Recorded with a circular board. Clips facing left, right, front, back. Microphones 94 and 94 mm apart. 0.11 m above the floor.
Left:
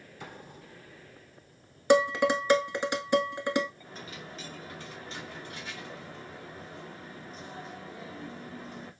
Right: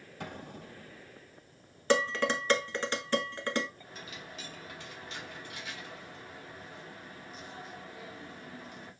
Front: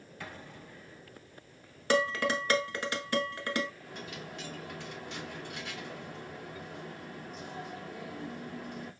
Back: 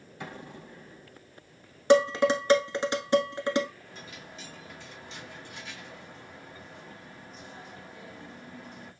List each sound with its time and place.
0.2 s an explosion: 110° right, 1.2 m
1.9 s dishes clattering: 145° left, 0.8 m
3.8 s a dropped coin: 35° left, 1.9 m